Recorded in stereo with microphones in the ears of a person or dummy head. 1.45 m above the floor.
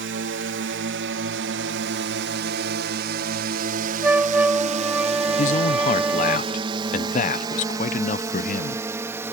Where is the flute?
5° right (ahead or behind).